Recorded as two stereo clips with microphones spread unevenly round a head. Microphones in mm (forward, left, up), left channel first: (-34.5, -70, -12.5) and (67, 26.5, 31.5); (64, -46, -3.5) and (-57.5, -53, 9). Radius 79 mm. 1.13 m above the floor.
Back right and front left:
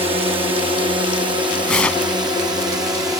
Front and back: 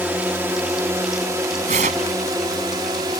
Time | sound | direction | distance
0.0 | a drone | 105° left | ?
1.7 | tearing paper | 135° left | ?